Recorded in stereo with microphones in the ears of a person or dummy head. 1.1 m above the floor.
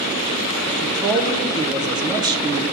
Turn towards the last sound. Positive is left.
turn(degrees=-20)  # may be behind; listen again after turning